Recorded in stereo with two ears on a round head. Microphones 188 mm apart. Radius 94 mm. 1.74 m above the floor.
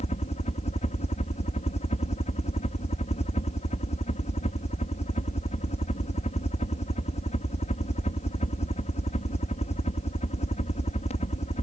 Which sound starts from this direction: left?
A helicopter, at 0.0 s.